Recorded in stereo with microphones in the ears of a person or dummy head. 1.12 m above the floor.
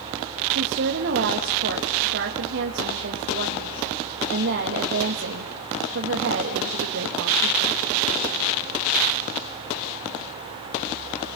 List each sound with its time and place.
0.5 s a woman speaking: 55° right (ahead or behind), 1.6 m